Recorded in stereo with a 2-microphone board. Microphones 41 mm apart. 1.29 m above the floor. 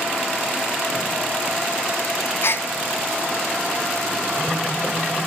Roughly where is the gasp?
Left.